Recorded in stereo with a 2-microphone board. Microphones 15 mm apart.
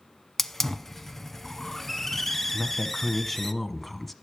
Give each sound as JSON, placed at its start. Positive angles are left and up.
{"t": 0.4, "sound": "a hiss", "side_deg": 20, "distance_m": 0.6}
{"t": 2.5, "sound": "a woman speaking", "side_deg": 15, "distance_m": 1.0}